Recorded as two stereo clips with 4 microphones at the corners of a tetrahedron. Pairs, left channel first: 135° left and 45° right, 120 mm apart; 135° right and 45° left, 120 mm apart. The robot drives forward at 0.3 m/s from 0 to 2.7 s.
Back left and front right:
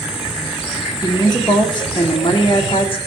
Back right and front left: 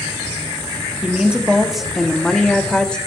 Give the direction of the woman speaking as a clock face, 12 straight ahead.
8 o'clock.